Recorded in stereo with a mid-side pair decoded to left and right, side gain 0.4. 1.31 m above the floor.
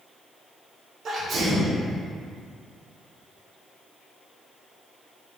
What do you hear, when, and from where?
1.1 s a sneeze: 55° right, 1.4 m